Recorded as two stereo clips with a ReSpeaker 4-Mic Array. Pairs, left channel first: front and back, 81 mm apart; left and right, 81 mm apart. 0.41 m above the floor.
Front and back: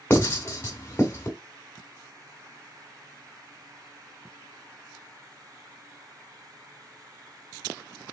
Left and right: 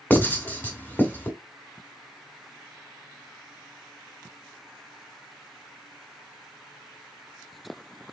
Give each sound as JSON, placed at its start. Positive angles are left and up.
{"t": 0.1, "sound": "writing", "azimuth_deg": 40, "distance_m": 1.4}